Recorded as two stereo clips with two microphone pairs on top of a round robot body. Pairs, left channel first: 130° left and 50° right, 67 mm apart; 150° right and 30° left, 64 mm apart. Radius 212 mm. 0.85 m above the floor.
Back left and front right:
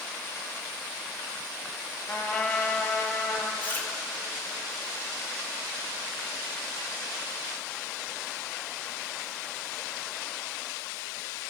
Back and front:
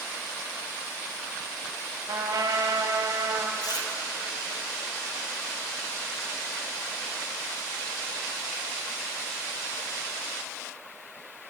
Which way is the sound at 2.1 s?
65° left.